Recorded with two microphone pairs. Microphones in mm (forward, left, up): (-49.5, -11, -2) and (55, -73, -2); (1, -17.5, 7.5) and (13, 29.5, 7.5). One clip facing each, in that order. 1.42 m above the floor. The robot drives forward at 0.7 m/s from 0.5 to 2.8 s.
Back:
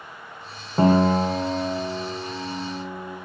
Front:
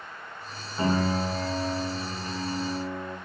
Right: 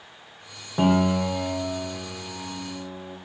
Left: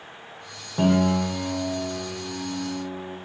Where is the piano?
175° right, 0.7 m; by 3.2 s straight behind, 2 m.